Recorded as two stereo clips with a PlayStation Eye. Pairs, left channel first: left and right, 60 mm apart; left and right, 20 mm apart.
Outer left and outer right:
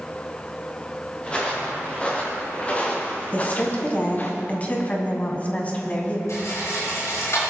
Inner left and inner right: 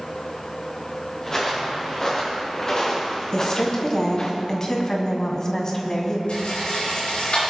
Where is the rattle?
70° left (ahead or behind), 5.5 m.